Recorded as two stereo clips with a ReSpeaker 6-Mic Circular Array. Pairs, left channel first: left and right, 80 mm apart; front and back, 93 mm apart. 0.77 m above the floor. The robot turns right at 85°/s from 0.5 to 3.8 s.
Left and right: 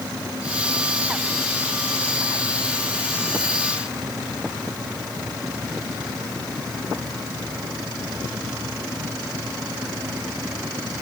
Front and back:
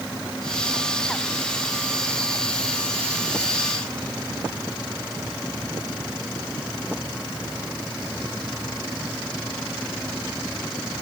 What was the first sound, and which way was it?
Only background noise.